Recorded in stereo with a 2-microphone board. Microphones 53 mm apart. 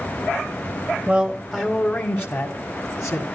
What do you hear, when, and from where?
1.1 s a man speaking: 20° right (ahead or behind), 1.0 m; by 3.2 s 60° left (ahead or behind), 2 m